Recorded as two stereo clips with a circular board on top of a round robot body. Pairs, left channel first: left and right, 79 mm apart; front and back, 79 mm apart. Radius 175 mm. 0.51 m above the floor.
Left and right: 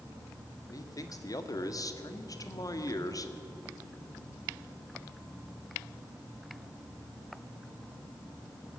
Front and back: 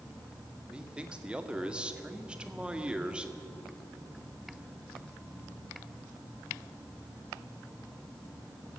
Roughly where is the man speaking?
Left.